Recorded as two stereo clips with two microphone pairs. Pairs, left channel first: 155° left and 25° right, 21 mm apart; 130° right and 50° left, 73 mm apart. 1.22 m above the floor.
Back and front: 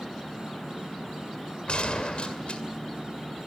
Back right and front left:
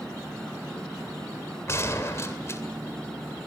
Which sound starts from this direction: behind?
A gunshot, at 1.7 s.